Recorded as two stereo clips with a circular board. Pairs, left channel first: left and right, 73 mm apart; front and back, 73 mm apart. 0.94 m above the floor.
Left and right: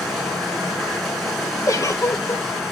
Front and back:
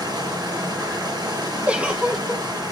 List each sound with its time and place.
0.0 s running water: straight behind, 4 m
1.7 s a giggle: 110° left, 0.9 m